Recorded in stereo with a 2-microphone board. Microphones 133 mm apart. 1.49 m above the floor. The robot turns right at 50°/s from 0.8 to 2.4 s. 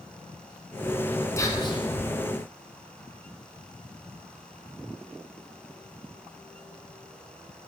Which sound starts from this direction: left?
Whispering, at 1.4 s.